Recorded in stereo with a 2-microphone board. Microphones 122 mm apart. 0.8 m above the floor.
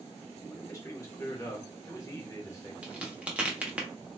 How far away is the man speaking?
About 1.1 m.